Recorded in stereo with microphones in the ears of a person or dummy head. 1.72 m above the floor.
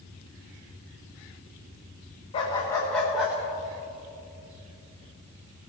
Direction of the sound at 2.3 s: 20° left (ahead or behind).